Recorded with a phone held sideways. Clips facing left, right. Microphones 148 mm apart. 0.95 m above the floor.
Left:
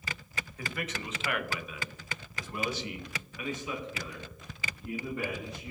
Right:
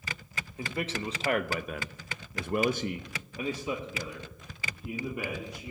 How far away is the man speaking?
About 1.1 m.